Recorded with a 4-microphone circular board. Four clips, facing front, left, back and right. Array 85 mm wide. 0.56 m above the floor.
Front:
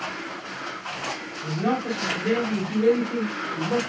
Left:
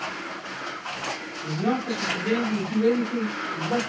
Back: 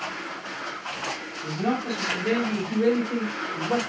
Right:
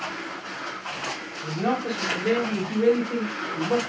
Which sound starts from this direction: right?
A man speaking, at 1.4 s.